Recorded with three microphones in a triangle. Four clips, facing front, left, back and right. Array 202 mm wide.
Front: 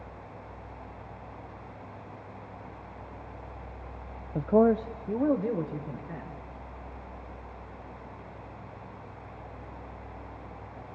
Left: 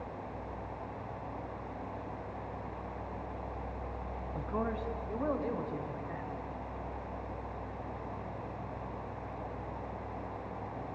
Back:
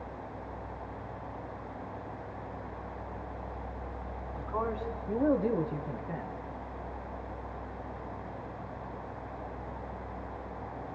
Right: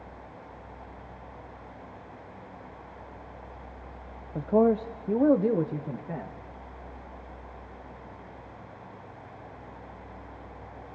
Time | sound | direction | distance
4.3 | a man speaking | 25° right | 0.6 m